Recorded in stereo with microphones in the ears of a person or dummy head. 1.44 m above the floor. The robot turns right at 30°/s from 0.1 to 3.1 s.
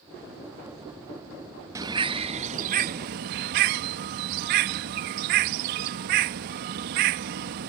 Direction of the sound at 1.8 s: 165° right.